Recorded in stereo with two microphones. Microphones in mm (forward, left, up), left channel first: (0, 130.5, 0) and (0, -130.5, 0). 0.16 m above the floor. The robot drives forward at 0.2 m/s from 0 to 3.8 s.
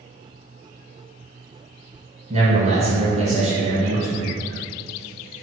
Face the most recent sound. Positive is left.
turn(degrees=-25)  # may be behind; listen again after turning